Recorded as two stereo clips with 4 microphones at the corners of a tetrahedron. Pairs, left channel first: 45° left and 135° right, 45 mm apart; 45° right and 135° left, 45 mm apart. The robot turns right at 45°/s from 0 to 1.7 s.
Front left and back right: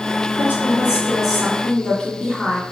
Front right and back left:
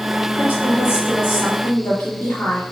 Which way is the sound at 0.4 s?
95° right.